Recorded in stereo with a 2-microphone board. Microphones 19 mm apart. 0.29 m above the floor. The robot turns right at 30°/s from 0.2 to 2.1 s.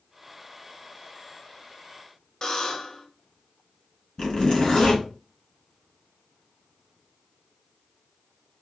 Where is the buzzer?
25° left (ahead or behind), 0.8 m.